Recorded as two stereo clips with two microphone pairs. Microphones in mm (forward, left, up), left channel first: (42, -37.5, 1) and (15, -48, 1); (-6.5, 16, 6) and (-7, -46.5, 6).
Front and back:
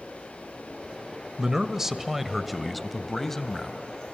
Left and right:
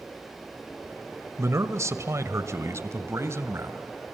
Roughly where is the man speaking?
Right.